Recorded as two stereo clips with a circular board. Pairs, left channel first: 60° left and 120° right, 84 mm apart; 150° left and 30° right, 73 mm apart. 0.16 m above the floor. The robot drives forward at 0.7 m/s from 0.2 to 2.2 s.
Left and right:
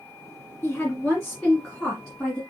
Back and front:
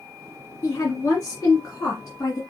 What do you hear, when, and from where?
0.6 s a woman speaking: 115° left, 1.8 m; by 2.4 s 150° left, 2.5 m